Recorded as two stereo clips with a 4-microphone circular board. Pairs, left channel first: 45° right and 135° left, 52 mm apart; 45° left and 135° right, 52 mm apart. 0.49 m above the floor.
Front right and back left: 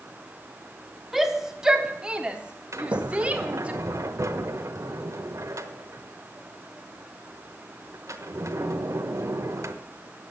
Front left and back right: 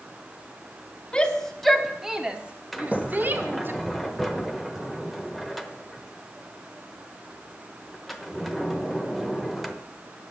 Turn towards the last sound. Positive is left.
turn(degrees=135)